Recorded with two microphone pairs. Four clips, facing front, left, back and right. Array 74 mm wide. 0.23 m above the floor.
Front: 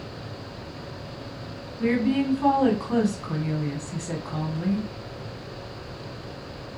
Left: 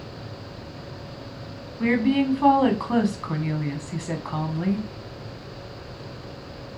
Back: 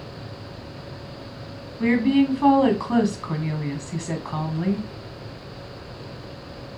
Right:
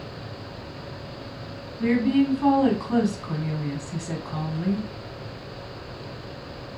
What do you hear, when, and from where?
1.8 s a woman speaking: 130° left, 1.8 m